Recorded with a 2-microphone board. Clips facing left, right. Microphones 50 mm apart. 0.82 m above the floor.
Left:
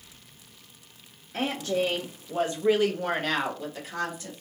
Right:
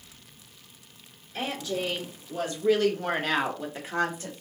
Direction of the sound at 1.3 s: 60° left (ahead or behind).